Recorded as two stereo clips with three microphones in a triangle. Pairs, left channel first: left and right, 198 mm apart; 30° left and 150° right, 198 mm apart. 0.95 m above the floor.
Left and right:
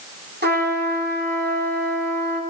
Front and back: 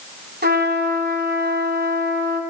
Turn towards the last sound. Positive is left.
turn(degrees=-120)